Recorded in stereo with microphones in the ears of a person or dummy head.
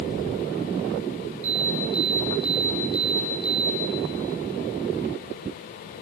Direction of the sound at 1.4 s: 35° right (ahead or behind).